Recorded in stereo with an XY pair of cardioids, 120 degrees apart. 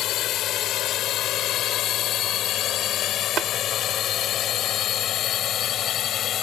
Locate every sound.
0.0 s a drone: 70° left; by 6.4 s 55° left
3.4 s tapping: 60° right